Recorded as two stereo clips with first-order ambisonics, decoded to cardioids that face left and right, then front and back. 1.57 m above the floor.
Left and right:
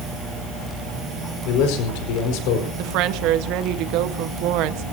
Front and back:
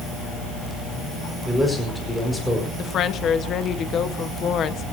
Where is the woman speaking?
60° right, 1.4 m.